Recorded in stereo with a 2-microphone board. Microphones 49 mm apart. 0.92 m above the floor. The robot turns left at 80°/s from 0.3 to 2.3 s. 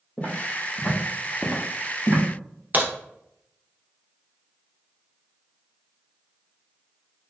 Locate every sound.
0.2 s footsteps: 30° left (ahead or behind), 1.3 m; by 2.2 s 30° right (ahead or behind), 1.2 m
2.7 s a crack: 35° right (ahead or behind), 0.7 m